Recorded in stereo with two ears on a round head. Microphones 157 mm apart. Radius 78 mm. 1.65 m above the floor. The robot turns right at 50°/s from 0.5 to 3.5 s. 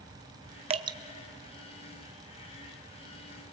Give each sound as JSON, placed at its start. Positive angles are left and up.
{"t": 0.7, "sound": "dripping", "side_deg": -35, "distance_m": 0.9}